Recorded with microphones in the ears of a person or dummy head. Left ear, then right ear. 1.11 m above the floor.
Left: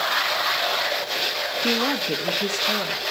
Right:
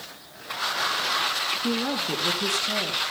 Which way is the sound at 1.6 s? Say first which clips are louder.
Left 4 dB; 25° left (ahead or behind).